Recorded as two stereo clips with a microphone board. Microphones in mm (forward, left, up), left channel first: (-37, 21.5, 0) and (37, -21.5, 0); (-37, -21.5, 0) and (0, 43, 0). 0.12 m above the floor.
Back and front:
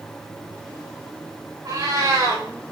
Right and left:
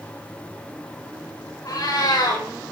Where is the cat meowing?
80° right, 8 m.